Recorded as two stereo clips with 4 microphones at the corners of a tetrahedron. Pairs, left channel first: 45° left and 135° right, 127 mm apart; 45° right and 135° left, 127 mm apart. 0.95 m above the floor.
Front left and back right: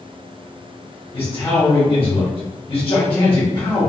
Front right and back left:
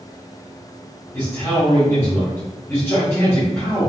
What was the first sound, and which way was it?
A man speaking, 20° left.